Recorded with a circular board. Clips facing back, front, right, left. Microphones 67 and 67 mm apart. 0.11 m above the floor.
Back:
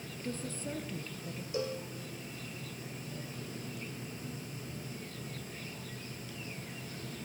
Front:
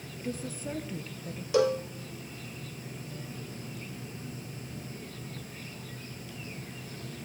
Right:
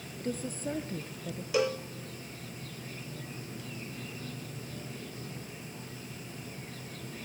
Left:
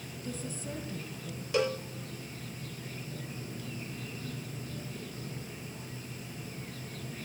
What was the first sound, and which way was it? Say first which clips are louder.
A woman speaking: front 3 dB, right 5 dB; 75° right.